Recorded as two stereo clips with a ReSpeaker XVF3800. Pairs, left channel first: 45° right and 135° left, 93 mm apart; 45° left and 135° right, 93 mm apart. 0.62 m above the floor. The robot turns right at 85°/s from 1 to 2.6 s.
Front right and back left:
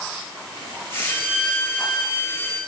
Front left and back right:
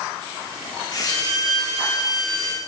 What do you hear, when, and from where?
1.1 s a violin: 90° right, 8 m; by 2.6 s 40° left, 8 m